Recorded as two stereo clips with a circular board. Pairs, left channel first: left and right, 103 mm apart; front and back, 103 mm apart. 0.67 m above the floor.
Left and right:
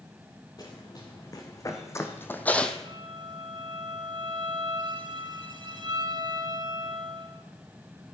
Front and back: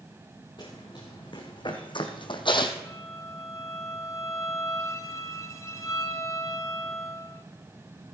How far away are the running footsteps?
About 2.5 m.